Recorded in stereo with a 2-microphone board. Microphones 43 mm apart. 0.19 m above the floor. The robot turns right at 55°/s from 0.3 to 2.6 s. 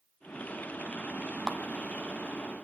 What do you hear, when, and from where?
1.5 s a clap: 15° right (ahead or behind), 0.9 m; by 1.6 s 20° right (ahead or behind), 0.9 m